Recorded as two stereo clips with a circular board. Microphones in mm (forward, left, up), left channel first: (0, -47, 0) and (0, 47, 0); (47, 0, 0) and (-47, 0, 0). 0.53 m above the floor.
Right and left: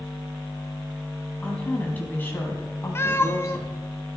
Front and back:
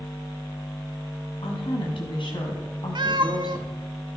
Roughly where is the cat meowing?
Behind right.